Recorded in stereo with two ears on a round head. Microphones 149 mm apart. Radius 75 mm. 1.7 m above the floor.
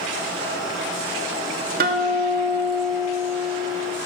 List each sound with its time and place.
1.8 s a guitar: 55° right (ahead or behind), 2.5 m